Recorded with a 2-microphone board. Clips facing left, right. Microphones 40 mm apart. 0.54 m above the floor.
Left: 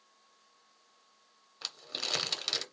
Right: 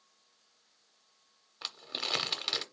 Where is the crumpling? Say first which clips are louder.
Right 1 dB; 10° right (ahead or behind), 0.7 m.